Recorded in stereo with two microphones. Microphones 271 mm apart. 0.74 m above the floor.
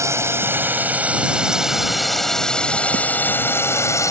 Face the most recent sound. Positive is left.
turn(degrees=10)  # may be behind; listen again after turning